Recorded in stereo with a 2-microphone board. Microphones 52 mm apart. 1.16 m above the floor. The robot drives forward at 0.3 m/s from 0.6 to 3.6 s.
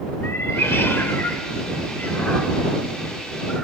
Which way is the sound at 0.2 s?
45° left (ahead or behind).